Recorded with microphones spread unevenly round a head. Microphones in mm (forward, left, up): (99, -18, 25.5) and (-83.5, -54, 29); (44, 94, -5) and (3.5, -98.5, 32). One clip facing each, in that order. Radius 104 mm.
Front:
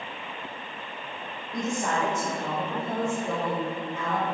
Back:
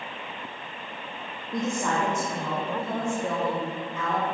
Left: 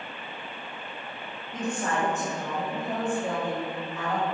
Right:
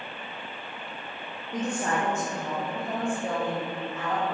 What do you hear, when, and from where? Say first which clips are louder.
1.5 s a woman speaking: back 1 dB, right 1 dB; 155° right, 1.3 m; by 4.2 s 170° left, 2.5 m